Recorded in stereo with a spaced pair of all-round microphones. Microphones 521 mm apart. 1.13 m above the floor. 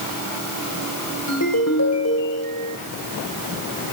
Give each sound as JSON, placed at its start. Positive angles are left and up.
{"t": 1.3, "sound": "a ringtone", "side_deg": 30, "distance_m": 3.0}